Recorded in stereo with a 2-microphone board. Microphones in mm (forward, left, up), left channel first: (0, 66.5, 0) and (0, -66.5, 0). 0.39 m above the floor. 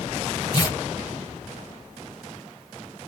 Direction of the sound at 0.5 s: 35° left (ahead or behind).